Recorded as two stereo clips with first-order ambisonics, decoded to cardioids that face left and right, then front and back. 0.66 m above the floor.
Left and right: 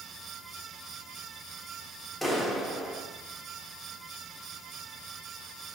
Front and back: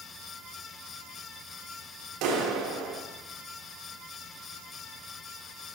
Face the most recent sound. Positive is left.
turn(degrees=170)